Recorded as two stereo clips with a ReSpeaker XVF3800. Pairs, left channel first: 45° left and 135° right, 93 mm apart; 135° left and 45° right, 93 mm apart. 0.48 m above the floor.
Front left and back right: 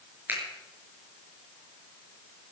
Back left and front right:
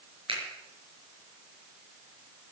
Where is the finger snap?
65° right, 6 m.